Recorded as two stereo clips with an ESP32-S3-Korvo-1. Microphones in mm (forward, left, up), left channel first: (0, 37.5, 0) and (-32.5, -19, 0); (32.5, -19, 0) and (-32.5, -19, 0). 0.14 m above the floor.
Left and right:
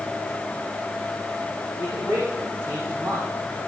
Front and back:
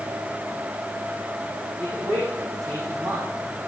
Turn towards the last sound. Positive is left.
turn(degrees=-140)